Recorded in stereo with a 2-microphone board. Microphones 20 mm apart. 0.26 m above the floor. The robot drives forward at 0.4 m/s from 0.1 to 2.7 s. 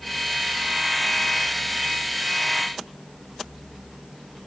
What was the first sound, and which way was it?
Only background noise.